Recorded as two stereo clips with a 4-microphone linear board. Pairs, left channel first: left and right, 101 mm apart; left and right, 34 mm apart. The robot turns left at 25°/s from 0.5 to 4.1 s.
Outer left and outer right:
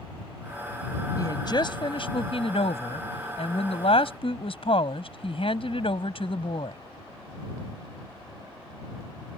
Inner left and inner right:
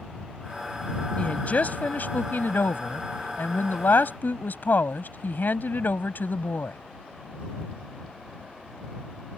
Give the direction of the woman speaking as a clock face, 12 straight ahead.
7 o'clock.